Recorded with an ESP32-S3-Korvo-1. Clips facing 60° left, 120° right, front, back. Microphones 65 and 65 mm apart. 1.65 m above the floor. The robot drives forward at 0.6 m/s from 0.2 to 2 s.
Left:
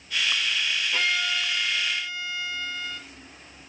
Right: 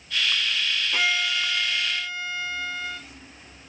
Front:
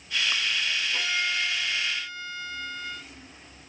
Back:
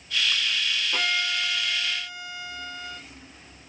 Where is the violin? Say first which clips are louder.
Right 2 dB, back 3 dB; 165° left, 1.5 m; by 3.0 s 170° left, 2 m.